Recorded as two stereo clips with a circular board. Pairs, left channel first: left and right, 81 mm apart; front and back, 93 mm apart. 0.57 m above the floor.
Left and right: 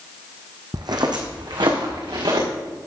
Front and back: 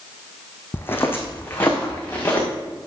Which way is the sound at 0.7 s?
65° right.